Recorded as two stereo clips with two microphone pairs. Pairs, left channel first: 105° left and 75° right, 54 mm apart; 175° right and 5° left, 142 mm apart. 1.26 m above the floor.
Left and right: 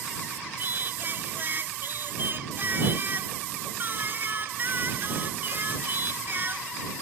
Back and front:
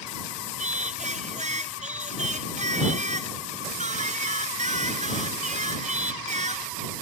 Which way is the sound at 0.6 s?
25° right.